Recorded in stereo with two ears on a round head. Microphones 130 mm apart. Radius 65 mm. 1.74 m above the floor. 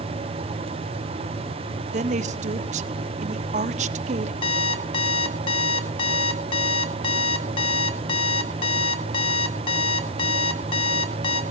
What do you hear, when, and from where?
1.9 s a woman speaking: 50° right (ahead or behind), 0.8 m
4.4 s an alarm clock: 35° left (ahead or behind), 1.7 m